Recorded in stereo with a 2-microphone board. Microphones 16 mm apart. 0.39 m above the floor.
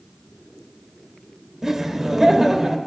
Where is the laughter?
35° right (ahead or behind), 1.1 m.